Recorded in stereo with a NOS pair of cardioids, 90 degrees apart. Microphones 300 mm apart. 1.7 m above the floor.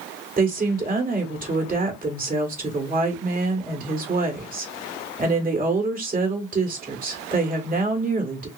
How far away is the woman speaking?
About 1.9 m.